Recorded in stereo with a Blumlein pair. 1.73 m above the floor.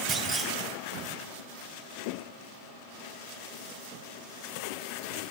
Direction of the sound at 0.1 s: 20° right.